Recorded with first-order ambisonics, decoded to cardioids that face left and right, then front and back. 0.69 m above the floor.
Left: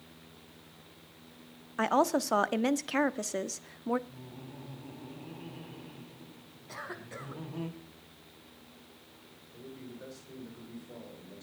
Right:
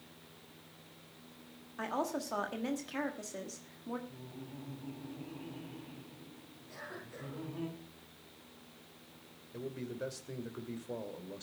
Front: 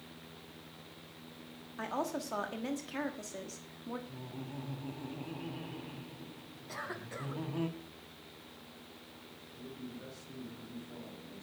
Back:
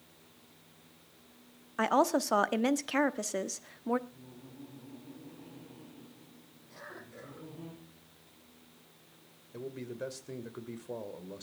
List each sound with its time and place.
1.8 s a woman speaking: 135° left, 1.1 m
4.1 s laughter: 15° left, 4 m
6.7 s a cough: 40° left, 5 m
9.5 s a man speaking: 150° right, 3 m